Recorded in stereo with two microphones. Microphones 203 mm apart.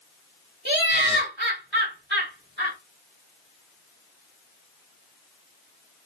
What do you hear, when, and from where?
0.7 s laughter: 60° right (ahead or behind), 1.4 m